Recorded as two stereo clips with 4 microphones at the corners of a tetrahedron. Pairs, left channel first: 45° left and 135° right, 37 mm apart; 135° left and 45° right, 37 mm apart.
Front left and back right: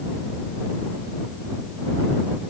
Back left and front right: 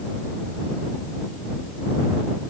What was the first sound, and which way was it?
Only background noise.